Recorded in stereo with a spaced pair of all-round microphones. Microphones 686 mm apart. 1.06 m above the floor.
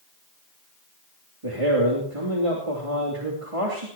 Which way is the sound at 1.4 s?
45° right (ahead or behind).